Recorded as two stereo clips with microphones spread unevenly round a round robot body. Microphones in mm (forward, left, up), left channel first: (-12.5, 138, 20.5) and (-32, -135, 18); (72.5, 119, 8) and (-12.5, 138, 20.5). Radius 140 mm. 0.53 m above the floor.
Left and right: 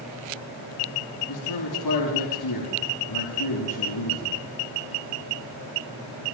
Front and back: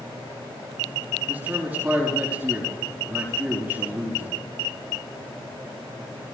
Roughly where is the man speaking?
Left.